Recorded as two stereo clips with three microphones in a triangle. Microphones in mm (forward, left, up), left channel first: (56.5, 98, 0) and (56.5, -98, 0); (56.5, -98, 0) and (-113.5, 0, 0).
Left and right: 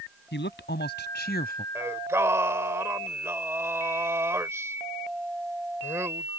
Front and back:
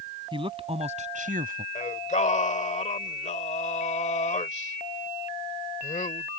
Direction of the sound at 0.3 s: 90° left.